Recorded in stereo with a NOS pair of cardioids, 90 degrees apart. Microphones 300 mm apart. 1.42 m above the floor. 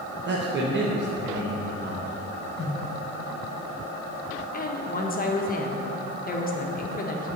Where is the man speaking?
35° right, 1.3 m.